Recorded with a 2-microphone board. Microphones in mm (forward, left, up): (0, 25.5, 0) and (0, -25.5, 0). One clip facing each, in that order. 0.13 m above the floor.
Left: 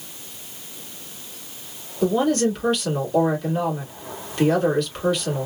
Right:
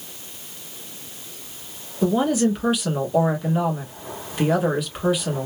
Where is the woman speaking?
10° right (ahead or behind), 1.3 m.